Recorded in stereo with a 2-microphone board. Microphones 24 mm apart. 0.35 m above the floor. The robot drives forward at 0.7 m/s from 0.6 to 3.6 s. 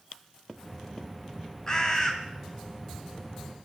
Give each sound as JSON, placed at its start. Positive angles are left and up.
{"t": 1.7, "sound": "a bird", "side_deg": 30, "distance_m": 1.8}